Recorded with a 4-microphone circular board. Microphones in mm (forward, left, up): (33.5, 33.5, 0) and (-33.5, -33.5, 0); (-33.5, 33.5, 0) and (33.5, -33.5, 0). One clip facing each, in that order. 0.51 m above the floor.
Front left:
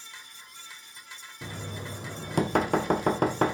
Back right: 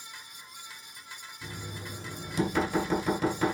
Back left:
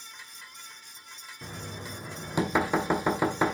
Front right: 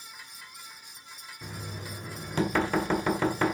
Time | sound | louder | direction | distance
1.4 | knocking | front left 4 dB, back left 1 dB | 60° left | 2.0 m